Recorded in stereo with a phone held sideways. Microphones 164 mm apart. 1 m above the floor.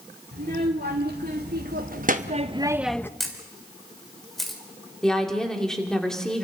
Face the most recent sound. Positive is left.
turn(degrees=5)  # may be behind; listen again after turning